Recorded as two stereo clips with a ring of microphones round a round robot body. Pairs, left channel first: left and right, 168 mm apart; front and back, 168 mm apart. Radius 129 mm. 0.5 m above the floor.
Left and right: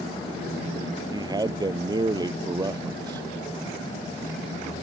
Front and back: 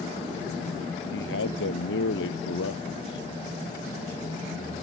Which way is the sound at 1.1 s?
25° right.